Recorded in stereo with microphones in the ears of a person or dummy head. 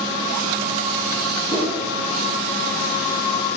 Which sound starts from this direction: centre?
A whoosh, at 1.5 s.